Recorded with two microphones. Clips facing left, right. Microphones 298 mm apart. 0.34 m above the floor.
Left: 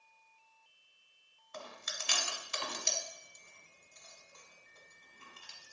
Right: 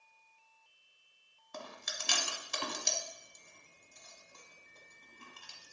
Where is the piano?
I don't hear a piano.